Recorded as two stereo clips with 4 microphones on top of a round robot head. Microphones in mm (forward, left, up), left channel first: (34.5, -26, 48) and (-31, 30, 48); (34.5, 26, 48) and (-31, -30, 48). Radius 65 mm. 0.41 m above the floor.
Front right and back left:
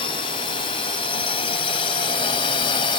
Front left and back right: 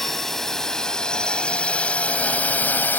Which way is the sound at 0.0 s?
45° right.